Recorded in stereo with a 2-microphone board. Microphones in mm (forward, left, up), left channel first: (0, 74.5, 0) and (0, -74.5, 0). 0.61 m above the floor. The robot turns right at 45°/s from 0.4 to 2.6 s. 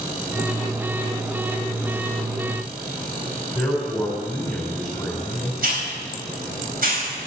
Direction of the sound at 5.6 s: 65° right (ahead or behind).